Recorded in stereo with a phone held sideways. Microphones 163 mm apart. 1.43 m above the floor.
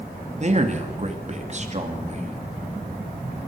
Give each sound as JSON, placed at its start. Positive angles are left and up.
{"t": 0.4, "sound": "a man speaking", "side_deg": -45, "distance_m": 2.0}